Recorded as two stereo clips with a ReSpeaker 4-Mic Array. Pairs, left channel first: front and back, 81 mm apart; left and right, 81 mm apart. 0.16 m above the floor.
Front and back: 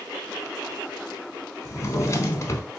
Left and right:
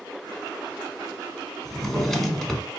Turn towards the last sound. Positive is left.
turn(degrees=5)